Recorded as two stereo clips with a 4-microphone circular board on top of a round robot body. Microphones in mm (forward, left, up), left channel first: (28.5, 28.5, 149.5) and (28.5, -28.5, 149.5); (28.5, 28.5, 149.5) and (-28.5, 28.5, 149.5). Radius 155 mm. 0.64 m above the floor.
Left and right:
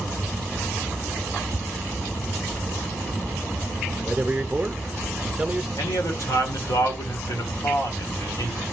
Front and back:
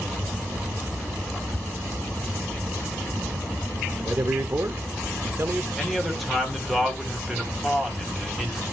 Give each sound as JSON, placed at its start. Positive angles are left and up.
{"t": 4.0, "sound": "a man speaking", "azimuth_deg": -165, "distance_m": 0.7}
{"t": 5.8, "sound": "a man speaking", "azimuth_deg": 90, "distance_m": 3.0}